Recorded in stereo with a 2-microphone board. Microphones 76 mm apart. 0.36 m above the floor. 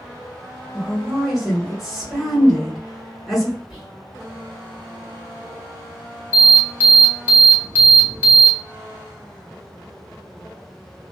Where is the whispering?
5° right (ahead or behind), 1.7 m.